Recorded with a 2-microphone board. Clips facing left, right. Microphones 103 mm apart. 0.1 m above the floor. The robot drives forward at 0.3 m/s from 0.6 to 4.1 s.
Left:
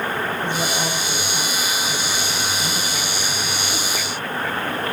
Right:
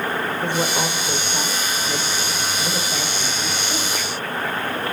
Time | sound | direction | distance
0.4 | a woman speaking | 50° right (ahead or behind) | 4.5 m